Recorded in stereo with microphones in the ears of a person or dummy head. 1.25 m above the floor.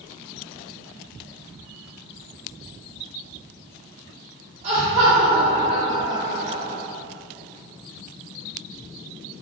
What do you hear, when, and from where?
4.6 s laughter: 35° right (ahead or behind), 0.5 m